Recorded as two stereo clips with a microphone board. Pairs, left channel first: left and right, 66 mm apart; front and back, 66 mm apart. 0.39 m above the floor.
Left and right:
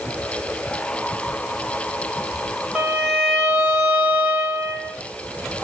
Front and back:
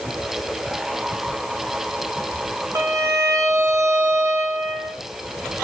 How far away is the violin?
About 1.4 m.